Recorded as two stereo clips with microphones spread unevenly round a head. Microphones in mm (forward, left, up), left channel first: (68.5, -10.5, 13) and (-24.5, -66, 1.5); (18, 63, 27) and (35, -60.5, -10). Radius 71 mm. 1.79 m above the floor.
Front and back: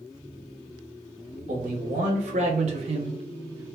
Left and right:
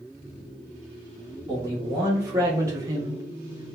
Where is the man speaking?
160° right, 1.5 m; by 3.8 s 150° right, 0.6 m.